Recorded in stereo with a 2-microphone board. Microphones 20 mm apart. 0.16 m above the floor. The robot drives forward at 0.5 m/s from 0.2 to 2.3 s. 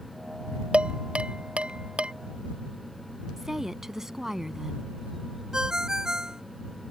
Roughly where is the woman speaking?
Centre.